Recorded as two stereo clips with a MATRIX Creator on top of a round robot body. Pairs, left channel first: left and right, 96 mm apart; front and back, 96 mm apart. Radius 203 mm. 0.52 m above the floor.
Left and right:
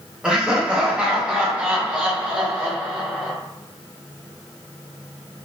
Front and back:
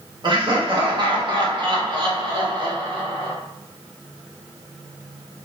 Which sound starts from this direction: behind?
Laughter, at 0.2 s.